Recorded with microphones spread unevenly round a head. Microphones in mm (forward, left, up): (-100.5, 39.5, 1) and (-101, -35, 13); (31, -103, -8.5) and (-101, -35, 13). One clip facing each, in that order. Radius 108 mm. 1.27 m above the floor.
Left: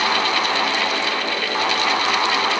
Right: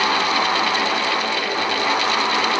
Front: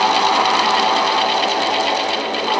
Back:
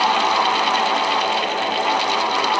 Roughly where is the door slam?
I don't hear a door slam.